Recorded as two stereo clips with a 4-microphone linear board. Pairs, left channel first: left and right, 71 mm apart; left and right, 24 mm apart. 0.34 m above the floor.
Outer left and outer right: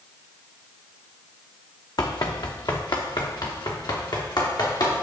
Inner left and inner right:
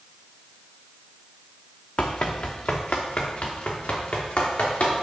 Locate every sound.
2.0 s running footsteps: 75° left (ahead or behind), 1.2 m; by 5.0 s 80° left, 4 m